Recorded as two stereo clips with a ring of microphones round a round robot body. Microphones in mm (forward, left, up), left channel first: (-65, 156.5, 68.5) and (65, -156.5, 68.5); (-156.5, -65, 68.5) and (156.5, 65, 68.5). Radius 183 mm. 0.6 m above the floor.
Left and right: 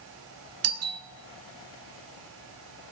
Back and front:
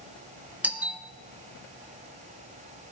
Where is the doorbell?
60° right, 1.5 m.